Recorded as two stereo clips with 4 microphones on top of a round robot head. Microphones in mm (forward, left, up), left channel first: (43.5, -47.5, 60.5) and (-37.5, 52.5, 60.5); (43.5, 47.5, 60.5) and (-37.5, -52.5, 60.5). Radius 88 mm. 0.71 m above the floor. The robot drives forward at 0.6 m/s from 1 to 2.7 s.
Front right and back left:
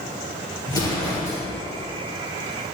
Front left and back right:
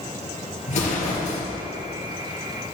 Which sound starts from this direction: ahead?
An explosion, at 0.7 s.